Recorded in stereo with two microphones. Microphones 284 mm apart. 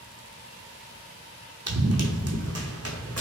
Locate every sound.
1.7 s running footsteps: 70° right (ahead or behind), 0.9 m; by 3.2 s 60° right (ahead or behind), 1.6 m